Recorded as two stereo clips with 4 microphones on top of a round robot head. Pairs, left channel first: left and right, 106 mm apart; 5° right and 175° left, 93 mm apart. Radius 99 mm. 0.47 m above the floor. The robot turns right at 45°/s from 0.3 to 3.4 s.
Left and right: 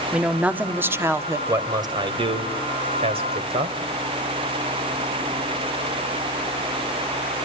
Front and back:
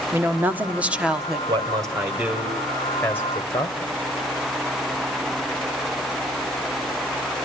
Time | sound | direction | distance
0.1 | a woman speaking | 155° right | 1.3 m
1.5 | a man speaking | 150° right | 2.5 m